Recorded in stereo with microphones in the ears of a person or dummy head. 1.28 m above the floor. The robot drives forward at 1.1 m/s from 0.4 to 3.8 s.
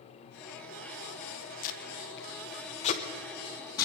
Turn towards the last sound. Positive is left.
turn(degrees=20)  # may be behind; listen again after turning